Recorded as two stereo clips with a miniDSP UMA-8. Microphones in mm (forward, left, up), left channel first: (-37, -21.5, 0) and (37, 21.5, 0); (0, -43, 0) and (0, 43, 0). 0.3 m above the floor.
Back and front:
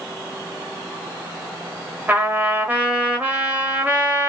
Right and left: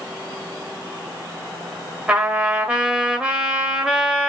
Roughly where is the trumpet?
Ahead left.